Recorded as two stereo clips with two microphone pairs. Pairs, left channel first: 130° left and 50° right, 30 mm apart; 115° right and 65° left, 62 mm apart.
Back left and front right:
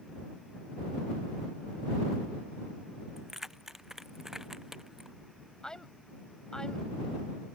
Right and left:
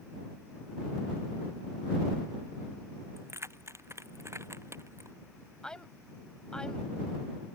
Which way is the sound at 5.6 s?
Straight behind.